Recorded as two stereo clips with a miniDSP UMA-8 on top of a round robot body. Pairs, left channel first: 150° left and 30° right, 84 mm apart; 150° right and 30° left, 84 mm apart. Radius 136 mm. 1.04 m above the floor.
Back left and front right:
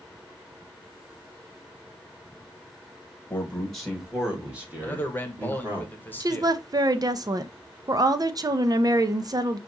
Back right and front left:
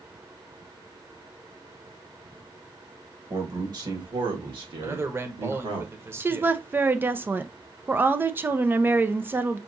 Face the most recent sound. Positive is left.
turn(degrees=-25)